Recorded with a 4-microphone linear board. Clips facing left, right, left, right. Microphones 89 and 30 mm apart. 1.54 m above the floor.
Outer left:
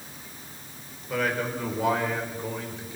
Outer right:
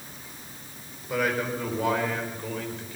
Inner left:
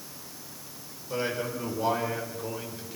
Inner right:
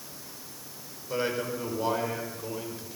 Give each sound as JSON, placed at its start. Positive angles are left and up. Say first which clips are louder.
{"t": 1.1, "sound": "a man speaking", "louder": "outer right 1 dB, inner right 1 dB", "side_deg": -10, "distance_m": 5.5}